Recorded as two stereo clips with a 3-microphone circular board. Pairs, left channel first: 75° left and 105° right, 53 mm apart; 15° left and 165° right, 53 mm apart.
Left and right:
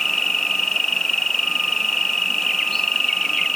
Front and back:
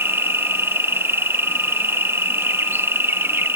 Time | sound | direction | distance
0.0 | an insect | 155° left | ?